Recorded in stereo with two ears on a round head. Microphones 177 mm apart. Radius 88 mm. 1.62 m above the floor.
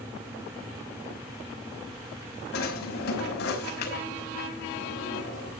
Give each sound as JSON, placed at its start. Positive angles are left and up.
{"t": 2.5, "sound": "a drawer", "side_deg": 55, "distance_m": 5.0}